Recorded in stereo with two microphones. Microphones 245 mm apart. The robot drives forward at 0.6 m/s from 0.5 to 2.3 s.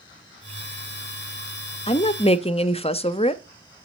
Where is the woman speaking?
25° left (ahead or behind), 0.5 m.